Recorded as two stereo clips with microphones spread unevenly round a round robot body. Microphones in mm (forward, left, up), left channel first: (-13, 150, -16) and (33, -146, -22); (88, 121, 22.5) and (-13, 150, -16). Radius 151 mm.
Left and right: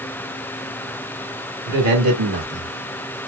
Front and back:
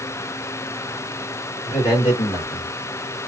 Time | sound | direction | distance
1.7 | a man speaking | 65° right | 1.4 m